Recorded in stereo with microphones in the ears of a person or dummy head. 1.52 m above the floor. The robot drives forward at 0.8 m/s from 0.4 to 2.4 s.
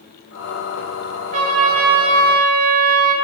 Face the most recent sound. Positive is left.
turn(degrees=-70)  # may be behind; listen again after turning